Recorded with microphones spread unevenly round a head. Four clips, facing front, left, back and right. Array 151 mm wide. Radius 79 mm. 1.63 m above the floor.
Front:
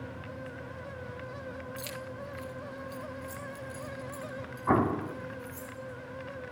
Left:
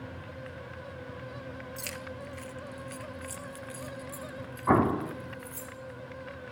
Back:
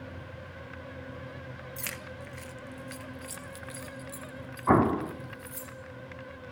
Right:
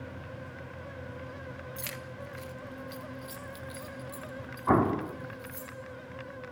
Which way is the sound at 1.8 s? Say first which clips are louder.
Left 1 dB, front 2 dB; 175° right.